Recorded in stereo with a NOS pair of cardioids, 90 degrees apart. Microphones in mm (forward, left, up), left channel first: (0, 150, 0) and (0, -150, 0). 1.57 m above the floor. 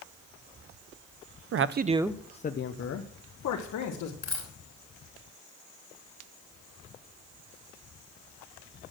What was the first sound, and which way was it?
A man speaking, 50° right.